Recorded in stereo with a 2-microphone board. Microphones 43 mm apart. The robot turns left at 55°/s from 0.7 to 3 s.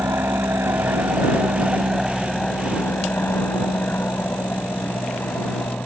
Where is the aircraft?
70° right (ahead or behind); by 5.9 s 55° left (ahead or behind).